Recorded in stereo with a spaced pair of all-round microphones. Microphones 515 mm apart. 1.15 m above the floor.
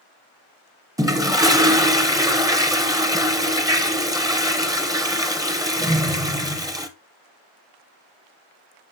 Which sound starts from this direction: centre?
A toilet flushing, at 1.0 s.